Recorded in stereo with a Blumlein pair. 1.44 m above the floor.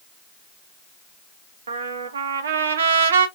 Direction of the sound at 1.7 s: 65° right.